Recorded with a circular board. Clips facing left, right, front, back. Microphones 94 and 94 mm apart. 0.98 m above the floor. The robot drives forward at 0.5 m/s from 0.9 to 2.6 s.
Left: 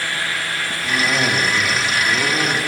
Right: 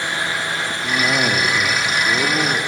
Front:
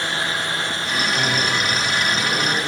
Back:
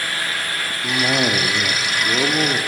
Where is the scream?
No scream in this recording.